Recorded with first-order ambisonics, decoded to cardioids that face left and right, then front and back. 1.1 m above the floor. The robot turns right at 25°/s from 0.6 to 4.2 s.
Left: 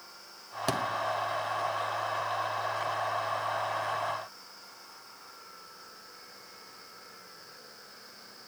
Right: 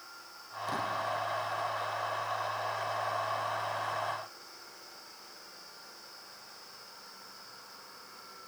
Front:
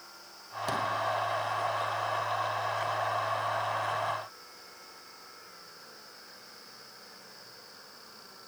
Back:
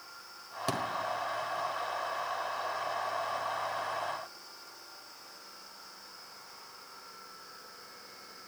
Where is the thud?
105° left, 1.4 m; by 0.8 s 110° left, 1.4 m.